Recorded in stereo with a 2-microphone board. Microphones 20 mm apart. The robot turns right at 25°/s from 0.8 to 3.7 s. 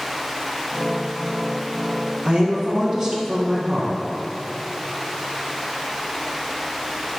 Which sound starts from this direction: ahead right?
A woman speaking, at 2.2 s.